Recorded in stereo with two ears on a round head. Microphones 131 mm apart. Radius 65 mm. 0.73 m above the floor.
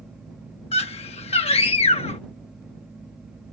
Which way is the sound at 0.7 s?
40° left (ahead or behind).